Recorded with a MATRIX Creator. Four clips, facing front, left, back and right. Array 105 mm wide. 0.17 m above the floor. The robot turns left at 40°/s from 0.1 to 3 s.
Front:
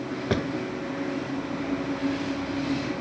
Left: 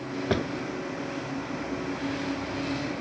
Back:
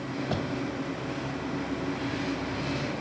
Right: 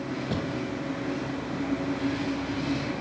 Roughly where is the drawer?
Ahead left.